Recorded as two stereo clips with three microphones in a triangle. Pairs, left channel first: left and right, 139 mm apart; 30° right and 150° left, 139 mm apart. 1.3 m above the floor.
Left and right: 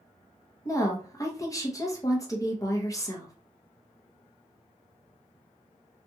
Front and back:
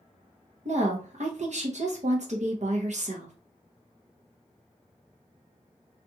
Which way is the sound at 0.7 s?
150° left.